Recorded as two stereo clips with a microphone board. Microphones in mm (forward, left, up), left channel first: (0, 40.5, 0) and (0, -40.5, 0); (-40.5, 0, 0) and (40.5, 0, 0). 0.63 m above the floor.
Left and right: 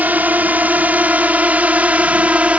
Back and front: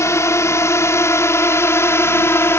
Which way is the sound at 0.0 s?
150° right.